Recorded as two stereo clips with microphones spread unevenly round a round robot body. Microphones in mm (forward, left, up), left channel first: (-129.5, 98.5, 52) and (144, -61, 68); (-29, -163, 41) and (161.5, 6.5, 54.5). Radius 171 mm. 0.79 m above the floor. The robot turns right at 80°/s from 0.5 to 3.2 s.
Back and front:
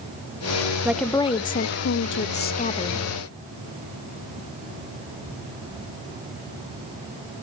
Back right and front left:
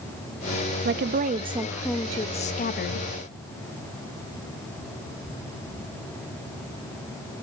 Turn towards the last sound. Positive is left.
turn(degrees=-115)